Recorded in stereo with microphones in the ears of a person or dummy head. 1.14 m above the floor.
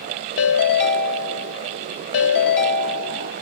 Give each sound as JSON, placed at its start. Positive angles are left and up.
{"t": 0.4, "sound": "a ringtone", "side_deg": 70, "distance_m": 2.5}